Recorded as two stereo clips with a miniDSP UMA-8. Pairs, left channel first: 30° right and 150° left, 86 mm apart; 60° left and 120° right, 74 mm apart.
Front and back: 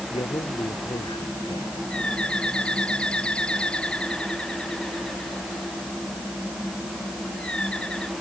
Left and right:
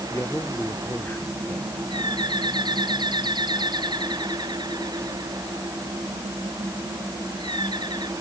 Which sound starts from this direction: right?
A bird, at 1.9 s.